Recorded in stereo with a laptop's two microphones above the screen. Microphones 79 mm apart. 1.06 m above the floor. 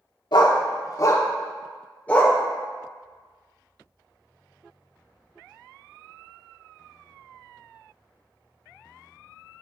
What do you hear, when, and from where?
0.3 s a dog barking: 60° left (ahead or behind), 0.9 m; by 2.4 s 15° left (ahead or behind), 1.6 m